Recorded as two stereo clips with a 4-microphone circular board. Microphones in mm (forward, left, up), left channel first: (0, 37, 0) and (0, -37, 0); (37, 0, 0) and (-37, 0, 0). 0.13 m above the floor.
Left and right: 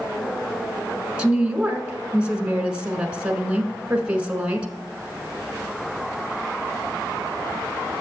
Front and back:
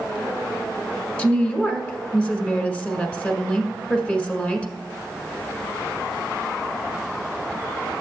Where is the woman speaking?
45° right, 1.2 m.